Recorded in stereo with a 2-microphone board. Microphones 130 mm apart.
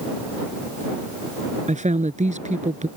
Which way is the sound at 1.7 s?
65° right (ahead or behind).